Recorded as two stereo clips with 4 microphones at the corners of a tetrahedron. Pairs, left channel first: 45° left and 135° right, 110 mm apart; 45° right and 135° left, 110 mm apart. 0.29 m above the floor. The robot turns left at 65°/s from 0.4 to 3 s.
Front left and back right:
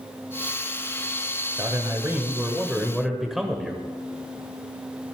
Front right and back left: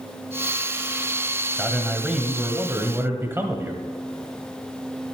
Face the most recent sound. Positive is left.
turn(degrees=140)